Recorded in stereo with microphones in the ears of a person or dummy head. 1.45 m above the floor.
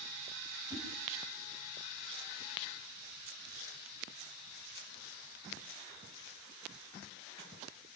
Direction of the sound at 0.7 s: 20° right (ahead or behind).